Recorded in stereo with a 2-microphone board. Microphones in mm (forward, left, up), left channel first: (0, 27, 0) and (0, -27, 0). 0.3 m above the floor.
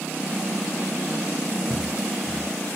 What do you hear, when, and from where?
1.7 s footsteps: 85° right, 4.5 m